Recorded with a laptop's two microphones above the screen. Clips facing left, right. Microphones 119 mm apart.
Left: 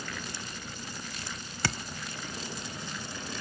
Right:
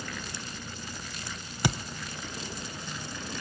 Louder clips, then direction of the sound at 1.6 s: Right 4 dB; 15° right (ahead or behind).